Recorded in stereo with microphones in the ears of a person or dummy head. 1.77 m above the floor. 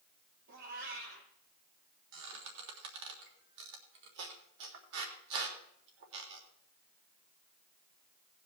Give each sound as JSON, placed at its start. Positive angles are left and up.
{"t": 0.5, "sound": "a cat meowing", "side_deg": -60, "distance_m": 5.0}
{"t": 2.1, "sound": "a squeak", "side_deg": -70, "distance_m": 3.5}